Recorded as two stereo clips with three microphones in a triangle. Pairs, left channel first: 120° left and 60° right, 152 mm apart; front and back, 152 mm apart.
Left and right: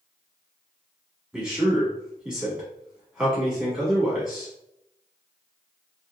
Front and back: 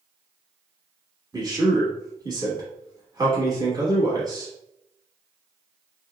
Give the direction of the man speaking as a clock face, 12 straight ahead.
5 o'clock.